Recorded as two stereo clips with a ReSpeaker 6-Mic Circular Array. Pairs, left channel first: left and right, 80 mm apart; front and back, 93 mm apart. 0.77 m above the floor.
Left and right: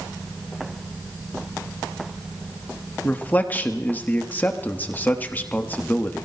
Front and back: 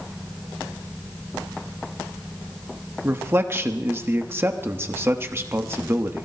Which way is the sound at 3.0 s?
140° left.